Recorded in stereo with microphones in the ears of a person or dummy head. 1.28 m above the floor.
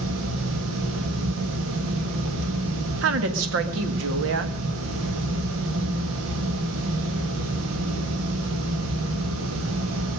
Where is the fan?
85° right, 2 m.